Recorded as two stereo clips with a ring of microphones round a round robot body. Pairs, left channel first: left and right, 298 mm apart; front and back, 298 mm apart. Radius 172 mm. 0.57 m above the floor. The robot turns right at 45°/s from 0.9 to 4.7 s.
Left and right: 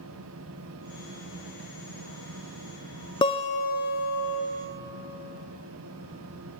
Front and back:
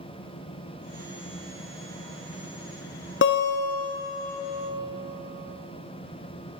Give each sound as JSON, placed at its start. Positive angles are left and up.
{"t": 3.2, "sound": "a guitar", "azimuth_deg": 25, "distance_m": 0.5}